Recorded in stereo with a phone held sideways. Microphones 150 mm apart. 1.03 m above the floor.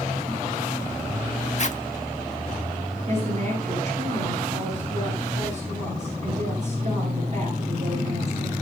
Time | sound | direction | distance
1.6 | a zipper | 50° left (ahead or behind) | 1.1 m
3.1 | a woman speaking | 50° right (ahead or behind) | 8.5 m